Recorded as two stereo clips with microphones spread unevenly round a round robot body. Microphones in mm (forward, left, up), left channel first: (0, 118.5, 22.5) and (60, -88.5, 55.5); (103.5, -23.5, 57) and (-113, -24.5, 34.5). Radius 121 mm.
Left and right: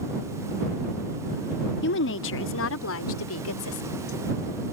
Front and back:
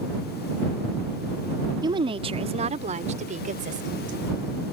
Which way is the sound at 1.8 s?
115° left.